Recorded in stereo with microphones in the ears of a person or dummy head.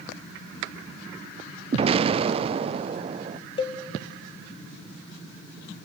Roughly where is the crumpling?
I don't hear crumpling.